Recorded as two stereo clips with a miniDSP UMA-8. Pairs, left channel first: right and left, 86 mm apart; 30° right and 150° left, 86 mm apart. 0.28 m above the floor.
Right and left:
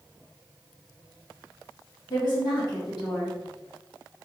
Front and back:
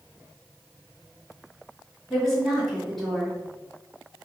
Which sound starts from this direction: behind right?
A woman speaking, at 2.1 s.